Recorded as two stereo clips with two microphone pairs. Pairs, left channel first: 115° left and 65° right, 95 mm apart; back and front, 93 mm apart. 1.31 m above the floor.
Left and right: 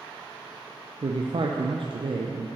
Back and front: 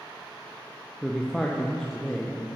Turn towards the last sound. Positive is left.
turn(degrees=-100)